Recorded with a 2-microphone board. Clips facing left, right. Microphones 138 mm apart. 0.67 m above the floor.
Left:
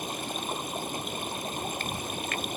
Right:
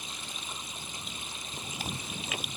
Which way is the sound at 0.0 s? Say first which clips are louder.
Left 11 dB; 55° left (ahead or behind).